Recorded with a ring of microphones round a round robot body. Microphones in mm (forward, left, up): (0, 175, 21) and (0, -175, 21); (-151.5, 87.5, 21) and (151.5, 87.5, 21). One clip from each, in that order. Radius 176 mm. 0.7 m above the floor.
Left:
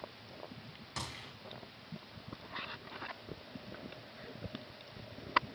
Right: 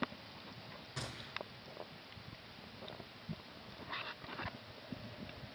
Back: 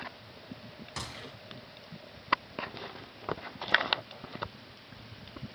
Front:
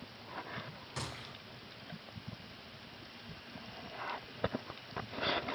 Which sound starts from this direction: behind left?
A gunshot, at 1.0 s.